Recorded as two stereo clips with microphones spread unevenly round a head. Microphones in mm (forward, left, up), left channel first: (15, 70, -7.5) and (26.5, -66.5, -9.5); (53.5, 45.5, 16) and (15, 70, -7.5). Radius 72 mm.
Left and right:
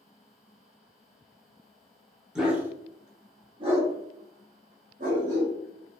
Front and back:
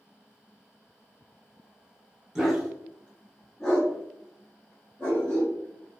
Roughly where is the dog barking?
Ahead.